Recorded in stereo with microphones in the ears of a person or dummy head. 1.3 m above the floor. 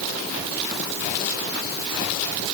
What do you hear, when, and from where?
Only background noise.